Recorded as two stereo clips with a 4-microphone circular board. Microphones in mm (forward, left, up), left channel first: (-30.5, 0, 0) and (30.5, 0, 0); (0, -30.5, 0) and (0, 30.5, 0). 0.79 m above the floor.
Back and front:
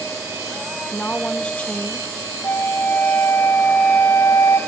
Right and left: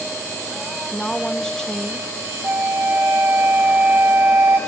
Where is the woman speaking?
150° right, 0.8 m.